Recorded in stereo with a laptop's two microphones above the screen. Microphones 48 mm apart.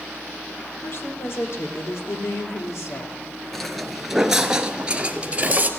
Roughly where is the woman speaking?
Left.